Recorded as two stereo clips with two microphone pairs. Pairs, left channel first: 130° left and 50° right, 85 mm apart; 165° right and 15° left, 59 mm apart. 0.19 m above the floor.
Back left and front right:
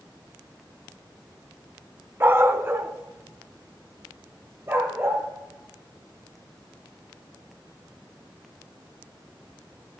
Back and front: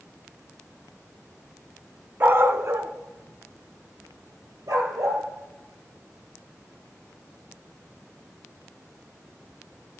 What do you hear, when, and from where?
2.2 s a dog barking: straight ahead, 0.6 m; by 5.2 s 10° left, 2 m